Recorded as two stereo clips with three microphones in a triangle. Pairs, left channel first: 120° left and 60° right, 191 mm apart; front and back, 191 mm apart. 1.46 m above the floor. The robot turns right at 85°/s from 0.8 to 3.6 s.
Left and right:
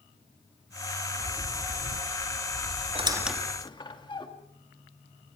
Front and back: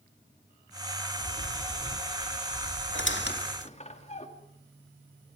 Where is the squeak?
Straight ahead, 2.5 m; by 4.3 s 55° left, 2.5 m.